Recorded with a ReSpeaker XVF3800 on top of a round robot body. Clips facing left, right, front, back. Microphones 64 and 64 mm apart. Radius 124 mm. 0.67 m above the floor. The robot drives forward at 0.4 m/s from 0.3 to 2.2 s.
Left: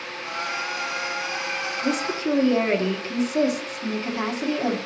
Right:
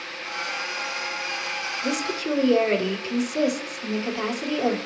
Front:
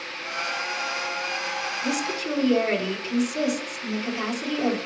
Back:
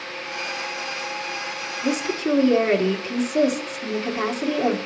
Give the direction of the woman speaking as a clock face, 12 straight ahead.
7 o'clock.